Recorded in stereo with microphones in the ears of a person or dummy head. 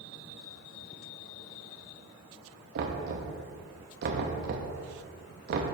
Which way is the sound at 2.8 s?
50° right (ahead or behind).